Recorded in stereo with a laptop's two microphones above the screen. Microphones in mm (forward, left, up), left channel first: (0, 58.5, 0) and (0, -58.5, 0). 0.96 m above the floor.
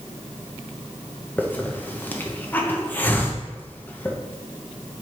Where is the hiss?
15° left (ahead or behind), 0.9 m.